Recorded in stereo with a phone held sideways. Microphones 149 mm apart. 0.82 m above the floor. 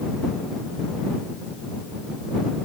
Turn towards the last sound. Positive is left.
No sound to turn to.